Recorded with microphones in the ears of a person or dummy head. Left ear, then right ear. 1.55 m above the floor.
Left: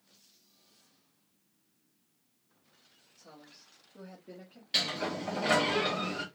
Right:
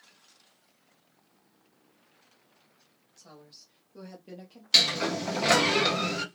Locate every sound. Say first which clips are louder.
3.2 s a woman speaking: right 3 dB; 15° right (ahead or behind), 1.4 m; by 5.7 s 65° right (ahead or behind), 1.6 m
4.7 s a sliding door: right 8 dB; 30° right (ahead or behind), 0.7 m